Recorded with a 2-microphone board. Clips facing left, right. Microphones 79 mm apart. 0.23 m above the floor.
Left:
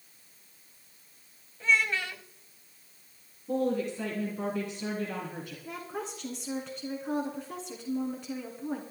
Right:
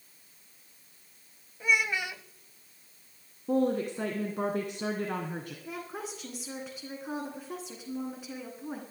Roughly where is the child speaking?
Centre.